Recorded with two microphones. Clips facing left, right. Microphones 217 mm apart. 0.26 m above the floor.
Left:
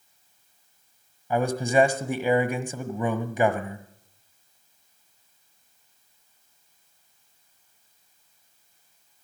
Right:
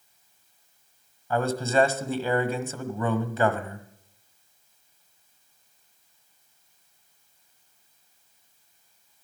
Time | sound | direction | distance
1.3 | a man speaking | 15° left (ahead or behind) | 1.3 m